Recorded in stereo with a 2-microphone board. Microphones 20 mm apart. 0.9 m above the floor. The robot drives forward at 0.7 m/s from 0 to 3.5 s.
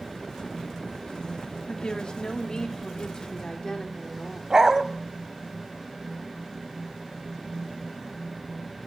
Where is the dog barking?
30° right (ahead or behind), 1.4 m.